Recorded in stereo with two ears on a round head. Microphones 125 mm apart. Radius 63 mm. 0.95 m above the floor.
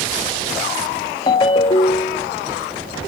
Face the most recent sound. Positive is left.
turn(degrees=35)  # may be behind; listen again after turning